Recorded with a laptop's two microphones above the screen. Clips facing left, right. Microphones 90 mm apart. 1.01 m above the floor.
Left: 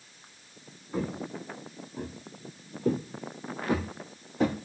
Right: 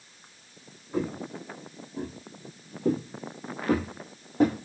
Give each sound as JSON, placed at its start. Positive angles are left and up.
{"t": 0.9, "sound": "footsteps", "side_deg": -5, "distance_m": 1.5}